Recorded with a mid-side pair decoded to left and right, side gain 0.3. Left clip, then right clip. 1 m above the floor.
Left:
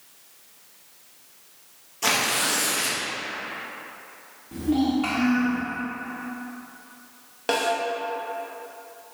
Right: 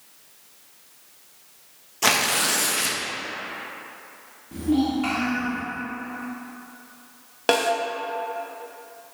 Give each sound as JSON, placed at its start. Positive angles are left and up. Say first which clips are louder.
{"t": 2.0, "sound": "tearing paper", "louder": "right 2 dB", "azimuth_deg": -55, "distance_m": 0.6}
{"t": 4.5, "sound": "a child speaking", "louder": "right 1 dB", "azimuth_deg": 5, "distance_m": 1.3}
{"t": 7.5, "sound": "a snare drum", "louder": "right 3 dB", "azimuth_deg": -65, "distance_m": 0.6}